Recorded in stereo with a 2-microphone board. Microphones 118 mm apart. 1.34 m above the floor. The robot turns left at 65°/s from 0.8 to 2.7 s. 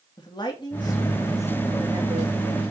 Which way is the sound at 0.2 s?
40° left.